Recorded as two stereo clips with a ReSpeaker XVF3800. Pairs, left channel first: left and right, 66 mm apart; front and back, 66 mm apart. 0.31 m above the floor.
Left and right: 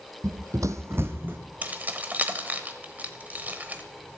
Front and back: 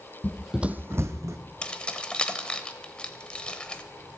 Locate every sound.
0.2 s running footsteps: 60° right, 0.6 m; by 1.4 s 150° right, 1.3 m
1.6 s keys jangling: 60° right, 0.9 m